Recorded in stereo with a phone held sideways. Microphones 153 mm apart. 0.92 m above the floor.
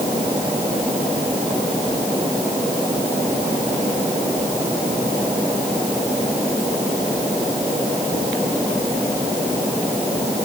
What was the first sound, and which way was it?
Only background noise.